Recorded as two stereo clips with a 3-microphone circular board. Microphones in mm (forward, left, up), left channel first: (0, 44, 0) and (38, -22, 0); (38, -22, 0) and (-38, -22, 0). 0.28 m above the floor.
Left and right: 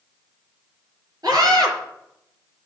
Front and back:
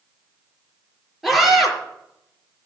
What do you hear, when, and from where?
1.2 s a scream: 95° right, 5.5 m